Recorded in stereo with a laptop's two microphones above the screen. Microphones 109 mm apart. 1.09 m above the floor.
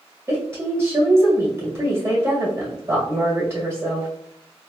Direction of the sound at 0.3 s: 25° right (ahead or behind).